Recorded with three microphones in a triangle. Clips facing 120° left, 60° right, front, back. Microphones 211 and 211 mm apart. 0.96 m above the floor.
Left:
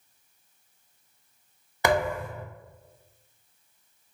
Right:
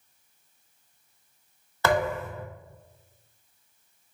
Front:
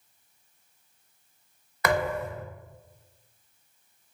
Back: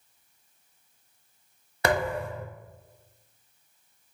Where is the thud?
Straight behind, 0.7 m.